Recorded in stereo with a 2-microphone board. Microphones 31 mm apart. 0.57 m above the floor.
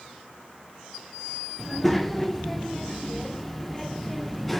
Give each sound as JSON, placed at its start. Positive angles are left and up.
{"t": 1.6, "sound": "a child speaking", "side_deg": 5, "distance_m": 0.8}